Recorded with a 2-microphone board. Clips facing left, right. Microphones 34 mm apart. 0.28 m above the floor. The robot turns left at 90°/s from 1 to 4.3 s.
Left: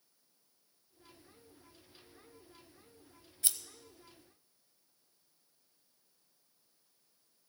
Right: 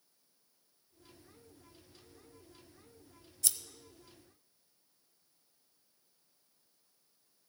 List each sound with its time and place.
3.4 s scissors: 30° left (ahead or behind), 0.5 m; by 3.6 s 25° left (ahead or behind), 0.5 m